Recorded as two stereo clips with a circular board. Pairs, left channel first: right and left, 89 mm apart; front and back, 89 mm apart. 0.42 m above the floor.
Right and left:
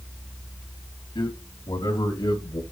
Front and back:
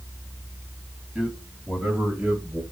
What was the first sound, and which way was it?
A man speaking, 105° right.